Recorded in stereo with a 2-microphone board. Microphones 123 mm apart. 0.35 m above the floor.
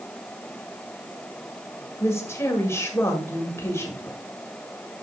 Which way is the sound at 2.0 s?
20° left (ahead or behind).